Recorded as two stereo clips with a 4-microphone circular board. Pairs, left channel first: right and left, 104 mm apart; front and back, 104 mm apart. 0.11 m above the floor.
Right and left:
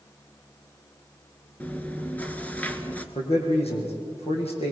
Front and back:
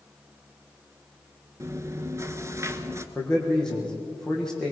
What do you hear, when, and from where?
1.6 s chewing: 150° right, 1.3 m
3.1 s a man speaking: 85° right, 5.5 m